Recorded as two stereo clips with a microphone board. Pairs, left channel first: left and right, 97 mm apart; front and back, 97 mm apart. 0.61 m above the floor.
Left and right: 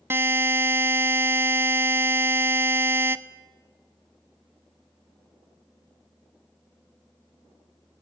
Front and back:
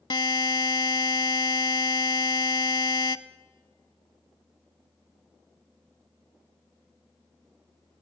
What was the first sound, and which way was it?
A buzzer, 30° right.